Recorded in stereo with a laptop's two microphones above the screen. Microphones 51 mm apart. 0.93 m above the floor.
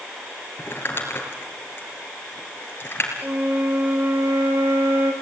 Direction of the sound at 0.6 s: 45° left (ahead or behind).